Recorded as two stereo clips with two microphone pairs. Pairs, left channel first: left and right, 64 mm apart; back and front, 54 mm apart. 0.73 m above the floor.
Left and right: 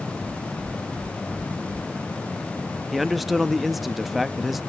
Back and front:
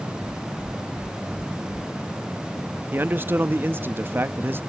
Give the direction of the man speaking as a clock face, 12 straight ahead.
12 o'clock.